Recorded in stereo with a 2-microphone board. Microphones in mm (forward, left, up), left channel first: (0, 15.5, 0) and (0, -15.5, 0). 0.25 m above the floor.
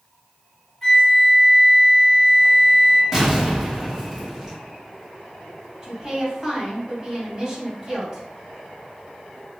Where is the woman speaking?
15° right (ahead or behind), 1.7 m.